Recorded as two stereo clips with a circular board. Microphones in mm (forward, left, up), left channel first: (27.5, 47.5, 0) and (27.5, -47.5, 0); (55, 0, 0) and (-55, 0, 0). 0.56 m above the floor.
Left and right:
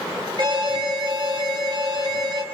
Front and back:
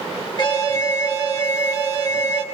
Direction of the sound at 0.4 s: 50° right.